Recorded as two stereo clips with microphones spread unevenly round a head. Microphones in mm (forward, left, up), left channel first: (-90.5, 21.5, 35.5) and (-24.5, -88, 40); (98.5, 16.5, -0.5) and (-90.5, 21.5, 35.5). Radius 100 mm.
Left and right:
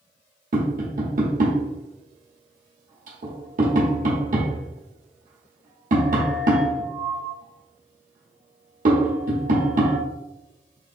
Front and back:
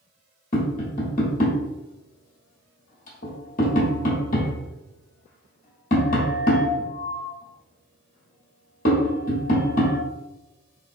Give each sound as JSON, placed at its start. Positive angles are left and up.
{"t": 0.5, "sound": "tapping", "azimuth_deg": -55, "distance_m": 1.2}